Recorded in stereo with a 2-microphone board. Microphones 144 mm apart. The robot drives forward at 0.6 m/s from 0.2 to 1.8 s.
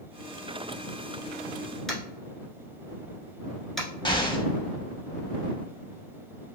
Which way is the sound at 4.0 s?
30° left (ahead or behind).